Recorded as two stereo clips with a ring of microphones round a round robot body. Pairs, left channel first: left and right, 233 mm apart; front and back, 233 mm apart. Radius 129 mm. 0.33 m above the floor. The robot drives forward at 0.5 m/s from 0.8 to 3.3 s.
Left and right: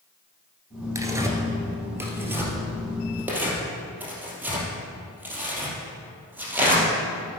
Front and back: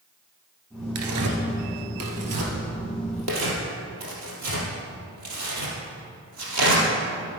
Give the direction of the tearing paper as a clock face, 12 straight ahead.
6 o'clock.